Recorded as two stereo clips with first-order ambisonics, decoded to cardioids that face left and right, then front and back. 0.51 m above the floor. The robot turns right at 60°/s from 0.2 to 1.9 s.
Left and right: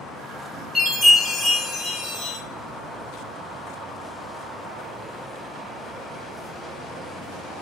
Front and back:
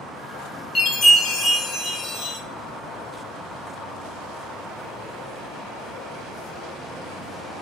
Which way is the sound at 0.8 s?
10° left.